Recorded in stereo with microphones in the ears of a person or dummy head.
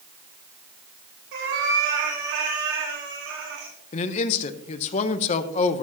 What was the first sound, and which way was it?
A cat meowing, 60° right (ahead or behind).